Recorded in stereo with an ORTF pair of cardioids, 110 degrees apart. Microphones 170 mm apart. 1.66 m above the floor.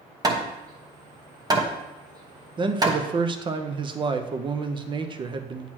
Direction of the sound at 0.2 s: 25° right.